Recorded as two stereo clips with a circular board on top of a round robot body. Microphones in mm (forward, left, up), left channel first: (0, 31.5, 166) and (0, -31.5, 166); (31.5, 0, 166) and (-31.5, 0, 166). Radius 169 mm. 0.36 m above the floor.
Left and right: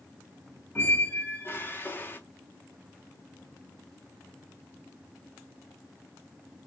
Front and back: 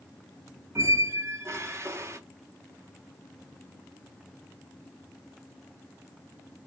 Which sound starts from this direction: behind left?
A squeak, at 0.8 s.